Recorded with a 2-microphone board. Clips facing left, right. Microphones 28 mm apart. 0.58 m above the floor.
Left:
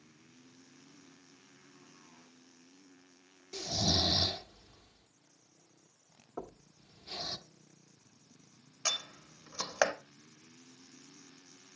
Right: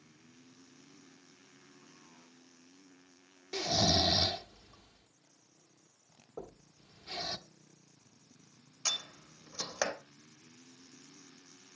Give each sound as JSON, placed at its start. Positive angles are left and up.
{"t": 3.5, "sound": "snoring", "side_deg": -40, "distance_m": 1.1}
{"t": 6.4, "sound": "knocking", "side_deg": 55, "distance_m": 1.2}
{"t": 8.8, "sound": "a door slam", "side_deg": 35, "distance_m": 2.0}